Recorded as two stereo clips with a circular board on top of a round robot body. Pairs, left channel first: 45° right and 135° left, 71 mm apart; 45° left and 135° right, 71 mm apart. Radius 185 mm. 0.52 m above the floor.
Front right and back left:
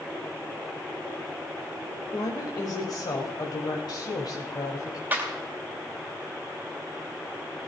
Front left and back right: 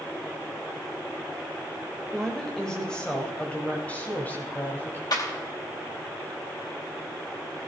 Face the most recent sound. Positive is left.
turn(degrees=75)